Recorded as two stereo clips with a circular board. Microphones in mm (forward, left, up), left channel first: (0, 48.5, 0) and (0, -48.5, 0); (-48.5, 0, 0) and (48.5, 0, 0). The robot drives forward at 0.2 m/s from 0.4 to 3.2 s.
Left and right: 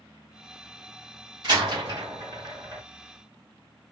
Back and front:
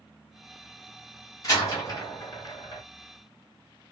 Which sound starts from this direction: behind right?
A door slam, at 1.4 s.